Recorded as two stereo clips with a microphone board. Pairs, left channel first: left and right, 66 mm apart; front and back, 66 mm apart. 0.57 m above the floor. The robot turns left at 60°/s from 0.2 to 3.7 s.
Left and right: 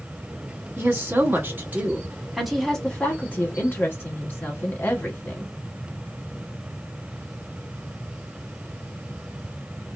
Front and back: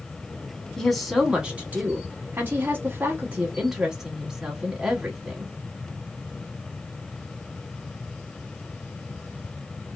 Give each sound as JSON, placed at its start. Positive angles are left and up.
{"t": 0.8, "sound": "a woman speaking", "azimuth_deg": -75, "distance_m": 0.8}